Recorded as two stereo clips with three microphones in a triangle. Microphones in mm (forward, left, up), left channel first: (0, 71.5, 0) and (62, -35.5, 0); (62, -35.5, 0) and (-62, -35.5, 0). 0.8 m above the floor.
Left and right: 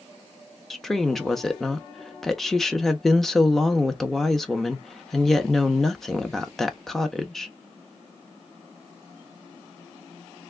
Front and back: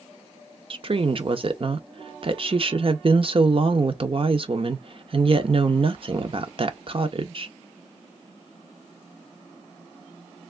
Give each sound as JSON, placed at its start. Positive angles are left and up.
{"t": 0.7, "sound": "a woman speaking", "azimuth_deg": -155, "distance_m": 0.6}